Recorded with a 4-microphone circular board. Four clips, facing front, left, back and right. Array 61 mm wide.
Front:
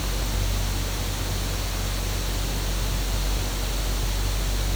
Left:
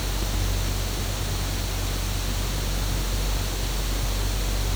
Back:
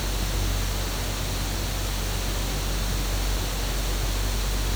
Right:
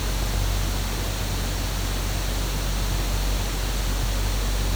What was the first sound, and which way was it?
Only background noise.